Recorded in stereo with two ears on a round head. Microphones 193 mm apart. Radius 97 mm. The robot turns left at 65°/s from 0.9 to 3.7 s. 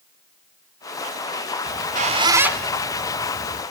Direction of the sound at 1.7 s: 50° right (ahead or behind).